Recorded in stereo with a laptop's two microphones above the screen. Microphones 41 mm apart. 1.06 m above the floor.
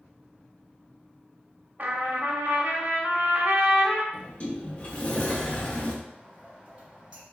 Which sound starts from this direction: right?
A trumpet, at 1.8 s.